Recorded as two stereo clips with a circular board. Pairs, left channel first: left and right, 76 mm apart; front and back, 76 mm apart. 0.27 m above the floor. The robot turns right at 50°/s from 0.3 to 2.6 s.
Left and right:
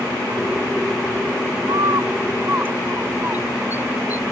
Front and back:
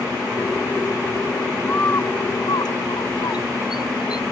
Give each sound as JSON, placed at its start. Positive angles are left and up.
{"t": 1.7, "sound": "a bird", "azimuth_deg": -70}